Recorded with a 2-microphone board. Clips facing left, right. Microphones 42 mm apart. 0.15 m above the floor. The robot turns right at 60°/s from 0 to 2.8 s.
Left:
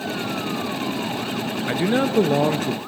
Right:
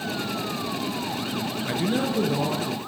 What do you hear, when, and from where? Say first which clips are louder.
1.7 s a man speaking: left 5 dB; 30° left, 1.9 m; by 2.8 s 95° left, 1.9 m